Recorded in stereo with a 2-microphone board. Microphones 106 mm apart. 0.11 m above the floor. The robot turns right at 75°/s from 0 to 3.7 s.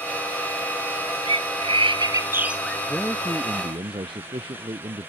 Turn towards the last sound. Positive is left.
turn(degrees=-130)